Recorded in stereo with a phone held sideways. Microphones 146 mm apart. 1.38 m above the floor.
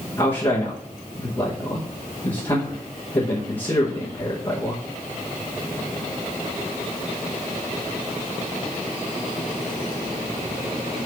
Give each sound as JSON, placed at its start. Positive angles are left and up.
{"t": 0.2, "sound": "a man speaking", "side_deg": 35, "distance_m": 1.2}